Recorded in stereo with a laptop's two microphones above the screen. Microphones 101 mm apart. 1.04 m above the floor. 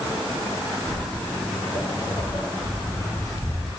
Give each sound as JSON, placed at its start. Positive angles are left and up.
{"t": 0.9, "sound": "footsteps", "side_deg": 65, "distance_m": 2.0}